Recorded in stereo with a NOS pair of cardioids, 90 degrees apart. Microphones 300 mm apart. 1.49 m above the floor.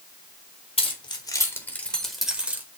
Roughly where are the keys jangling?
Ahead.